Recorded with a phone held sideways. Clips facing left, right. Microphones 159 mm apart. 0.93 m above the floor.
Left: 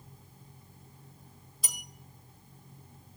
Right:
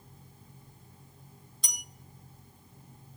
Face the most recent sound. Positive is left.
turn(degrees=5)  # may be behind; listen again after turning